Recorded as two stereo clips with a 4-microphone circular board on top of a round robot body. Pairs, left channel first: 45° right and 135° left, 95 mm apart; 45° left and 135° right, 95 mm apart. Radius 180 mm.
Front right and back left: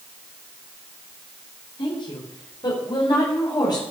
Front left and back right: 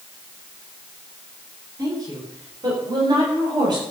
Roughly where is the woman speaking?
Right.